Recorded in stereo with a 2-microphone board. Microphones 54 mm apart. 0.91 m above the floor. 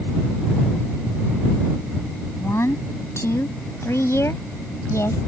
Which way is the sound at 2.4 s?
55° left (ahead or behind).